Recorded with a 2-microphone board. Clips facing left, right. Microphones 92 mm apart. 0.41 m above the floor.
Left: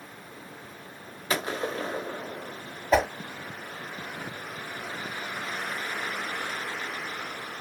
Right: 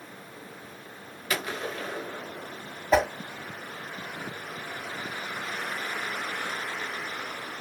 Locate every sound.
1.3 s a gunshot: 30° left (ahead or behind), 0.7 m
2.9 s a whoosh: centre (ahead or behind), 1.0 m